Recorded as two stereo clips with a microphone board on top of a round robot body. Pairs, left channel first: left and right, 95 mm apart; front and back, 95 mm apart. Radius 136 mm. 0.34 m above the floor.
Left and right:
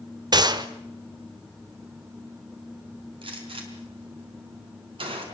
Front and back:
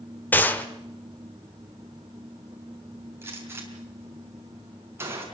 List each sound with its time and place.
0.3 s a gunshot: 65° right, 2 m
3.2 s a gunshot: 115° right, 5 m